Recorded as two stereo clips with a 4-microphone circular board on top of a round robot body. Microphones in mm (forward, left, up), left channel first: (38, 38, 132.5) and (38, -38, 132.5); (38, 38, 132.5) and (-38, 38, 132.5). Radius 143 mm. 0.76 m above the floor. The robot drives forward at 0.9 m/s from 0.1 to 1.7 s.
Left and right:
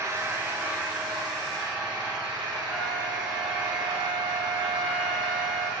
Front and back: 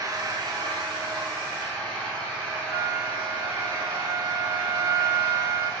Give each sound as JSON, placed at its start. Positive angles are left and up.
{"t": 0.0, "sound": "an engine running", "azimuth_deg": -140, "distance_m": 0.8}
{"t": 2.7, "sound": "a flute", "azimuth_deg": -170, "distance_m": 1.0}